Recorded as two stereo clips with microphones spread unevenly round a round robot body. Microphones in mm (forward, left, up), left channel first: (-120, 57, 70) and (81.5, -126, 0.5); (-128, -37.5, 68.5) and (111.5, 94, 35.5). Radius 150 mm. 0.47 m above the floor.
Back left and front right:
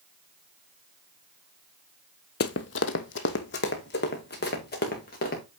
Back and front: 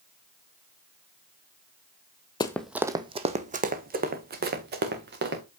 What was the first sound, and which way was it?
Running footsteps, 145° left.